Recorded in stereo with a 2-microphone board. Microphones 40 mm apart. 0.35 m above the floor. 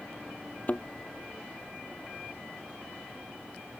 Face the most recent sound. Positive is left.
turn(degrees=40)  # may be behind; listen again after turning